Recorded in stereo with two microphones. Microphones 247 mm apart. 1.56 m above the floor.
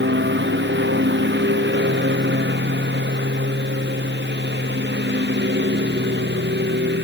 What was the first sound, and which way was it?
A lawn mower, 45° right (ahead or behind).